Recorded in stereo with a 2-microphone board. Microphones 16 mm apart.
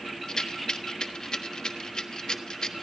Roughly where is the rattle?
Left.